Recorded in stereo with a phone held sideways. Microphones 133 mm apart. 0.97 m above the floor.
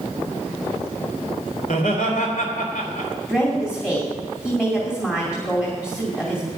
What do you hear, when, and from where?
1.6 s laughter: 85° left, 3 m
3.3 s a woman speaking: 20° left (ahead or behind), 2.5 m